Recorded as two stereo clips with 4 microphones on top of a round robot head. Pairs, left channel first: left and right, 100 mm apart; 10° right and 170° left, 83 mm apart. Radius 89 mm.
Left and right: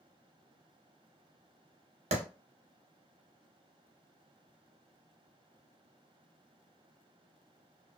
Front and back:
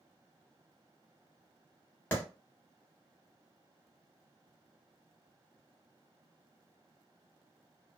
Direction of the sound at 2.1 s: 85° right.